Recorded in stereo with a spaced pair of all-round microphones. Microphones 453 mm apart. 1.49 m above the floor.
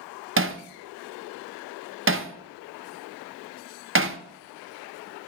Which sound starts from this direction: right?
Hammering, at 0.4 s.